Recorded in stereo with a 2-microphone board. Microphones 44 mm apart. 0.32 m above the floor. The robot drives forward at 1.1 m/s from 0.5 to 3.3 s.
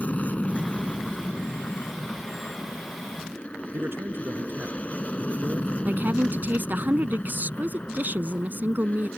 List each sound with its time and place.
0.0 s an aircraft: 35° left (ahead or behind); by 9.2 s 30° left (ahead or behind)
3.7 s a man speaking: 55° right (ahead or behind)
5.8 s a woman speaking: 40° right (ahead or behind)